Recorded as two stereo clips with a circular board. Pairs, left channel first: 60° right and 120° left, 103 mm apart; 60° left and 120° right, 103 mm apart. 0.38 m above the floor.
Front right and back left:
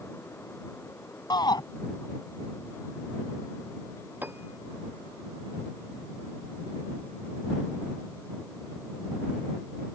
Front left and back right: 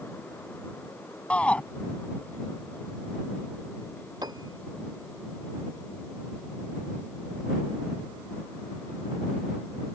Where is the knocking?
I don't hear knocking.